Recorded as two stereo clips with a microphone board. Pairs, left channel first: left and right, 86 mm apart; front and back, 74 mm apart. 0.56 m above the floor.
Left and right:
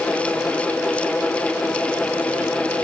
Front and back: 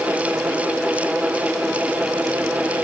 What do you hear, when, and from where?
Only background noise.